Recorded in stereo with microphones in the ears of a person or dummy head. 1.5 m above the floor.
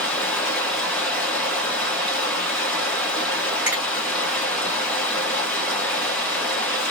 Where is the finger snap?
5° right (ahead or behind), 1.9 m.